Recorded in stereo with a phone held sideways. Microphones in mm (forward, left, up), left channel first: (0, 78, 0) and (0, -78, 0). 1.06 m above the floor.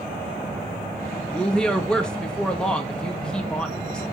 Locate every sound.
1.3 s a woman speaking: 5° left (ahead or behind), 1.3 m